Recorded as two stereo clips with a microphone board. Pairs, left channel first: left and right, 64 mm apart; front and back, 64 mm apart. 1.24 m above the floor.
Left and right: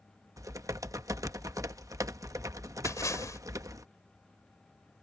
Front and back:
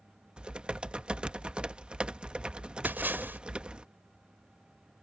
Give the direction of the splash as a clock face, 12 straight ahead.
8 o'clock.